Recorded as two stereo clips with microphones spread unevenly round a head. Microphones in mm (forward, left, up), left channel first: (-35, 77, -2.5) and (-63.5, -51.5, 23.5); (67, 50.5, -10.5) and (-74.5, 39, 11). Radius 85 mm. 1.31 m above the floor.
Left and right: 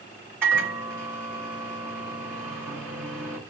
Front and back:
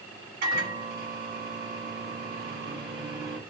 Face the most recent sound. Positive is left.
turn(degrees=-175)